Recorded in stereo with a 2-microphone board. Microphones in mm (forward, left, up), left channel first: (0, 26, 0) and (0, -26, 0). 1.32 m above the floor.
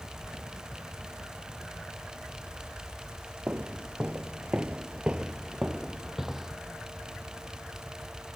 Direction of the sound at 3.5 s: 25° right (ahead or behind).